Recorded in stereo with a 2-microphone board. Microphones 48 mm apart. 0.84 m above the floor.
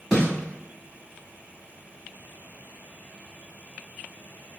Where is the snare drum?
5° left (ahead or behind), 2.0 m.